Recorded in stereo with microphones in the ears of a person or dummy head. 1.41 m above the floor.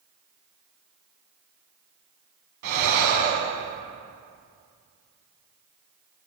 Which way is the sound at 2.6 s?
55° right (ahead or behind).